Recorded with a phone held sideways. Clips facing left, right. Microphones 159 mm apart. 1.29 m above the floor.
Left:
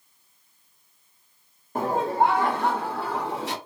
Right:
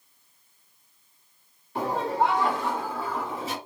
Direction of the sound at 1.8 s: 45° left (ahead or behind).